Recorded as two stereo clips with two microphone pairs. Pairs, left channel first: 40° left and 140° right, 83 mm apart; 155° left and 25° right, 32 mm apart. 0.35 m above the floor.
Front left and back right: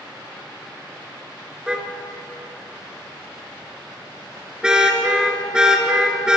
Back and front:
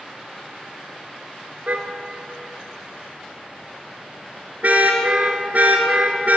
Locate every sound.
1.7 s a car horn: 60° right, 3.5 m